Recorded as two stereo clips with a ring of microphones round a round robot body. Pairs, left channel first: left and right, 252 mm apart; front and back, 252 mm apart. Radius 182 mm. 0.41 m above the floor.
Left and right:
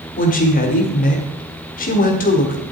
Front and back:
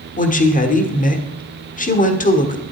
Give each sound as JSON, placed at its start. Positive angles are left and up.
{"t": 0.2, "sound": "a woman speaking", "azimuth_deg": 45, "distance_m": 1.3}